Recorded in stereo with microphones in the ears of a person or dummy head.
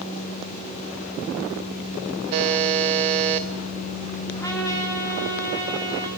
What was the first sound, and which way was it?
A buzzer, 30° right (ahead or behind).